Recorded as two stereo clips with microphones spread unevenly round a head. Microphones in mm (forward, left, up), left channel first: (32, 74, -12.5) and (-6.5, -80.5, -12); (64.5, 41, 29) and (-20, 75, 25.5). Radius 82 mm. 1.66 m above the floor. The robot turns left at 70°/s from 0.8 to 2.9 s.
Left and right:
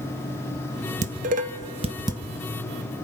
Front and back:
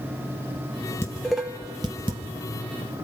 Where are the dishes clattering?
90° right, 1.1 m; by 2.2 s 170° right, 1.1 m.